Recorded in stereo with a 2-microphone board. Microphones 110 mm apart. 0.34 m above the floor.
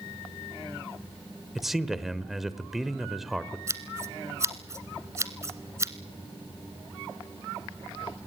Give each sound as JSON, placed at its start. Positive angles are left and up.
{"t": 1.6, "sound": "a man speaking", "side_deg": 0, "distance_m": 1.0}
{"t": 3.7, "sound": "scissors", "side_deg": -25, "distance_m": 1.3}